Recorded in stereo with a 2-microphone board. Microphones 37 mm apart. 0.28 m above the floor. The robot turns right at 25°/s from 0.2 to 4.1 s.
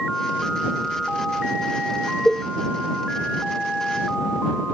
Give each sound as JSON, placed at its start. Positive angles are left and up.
{"t": 2.2, "sound": "a cowbell", "side_deg": 30}